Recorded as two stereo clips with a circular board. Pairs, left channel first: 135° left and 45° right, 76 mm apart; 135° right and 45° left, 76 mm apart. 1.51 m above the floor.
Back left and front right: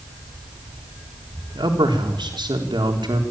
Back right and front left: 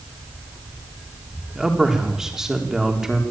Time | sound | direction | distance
1.6 | a man speaking | 40° right | 3.5 m